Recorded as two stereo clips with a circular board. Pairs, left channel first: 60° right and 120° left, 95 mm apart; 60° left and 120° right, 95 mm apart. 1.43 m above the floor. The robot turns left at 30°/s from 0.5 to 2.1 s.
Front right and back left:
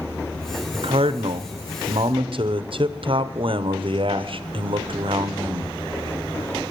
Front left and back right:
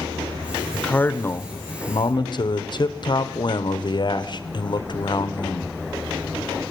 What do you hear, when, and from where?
0.7 s a man speaking: 140° left, 0.9 m; by 5.7 s 100° left, 0.9 m